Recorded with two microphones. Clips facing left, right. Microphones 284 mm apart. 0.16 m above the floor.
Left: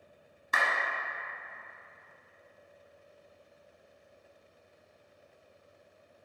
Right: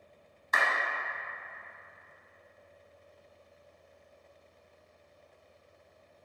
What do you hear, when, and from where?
0.5 s a clap: 35° left (ahead or behind), 1.0 m